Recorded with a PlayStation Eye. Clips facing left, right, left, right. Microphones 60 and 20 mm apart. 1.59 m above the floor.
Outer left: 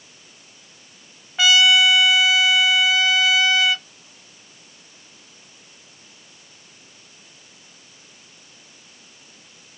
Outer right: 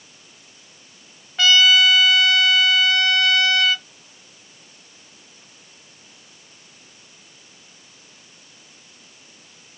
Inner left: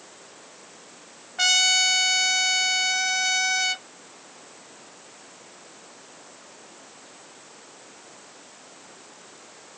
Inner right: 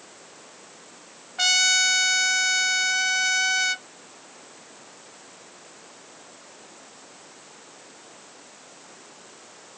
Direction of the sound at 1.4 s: 5° left (ahead or behind).